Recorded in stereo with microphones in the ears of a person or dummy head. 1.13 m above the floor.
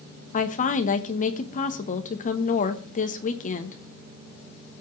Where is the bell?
No bell in this recording.